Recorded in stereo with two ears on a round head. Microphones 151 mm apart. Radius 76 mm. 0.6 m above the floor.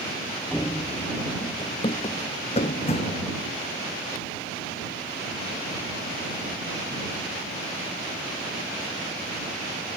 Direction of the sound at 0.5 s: 5° left (ahead or behind).